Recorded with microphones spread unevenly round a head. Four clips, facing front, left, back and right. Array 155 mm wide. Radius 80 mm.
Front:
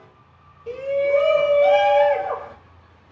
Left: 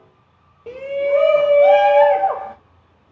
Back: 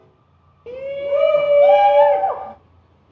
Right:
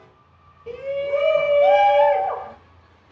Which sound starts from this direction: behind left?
A shout, at 0.7 s.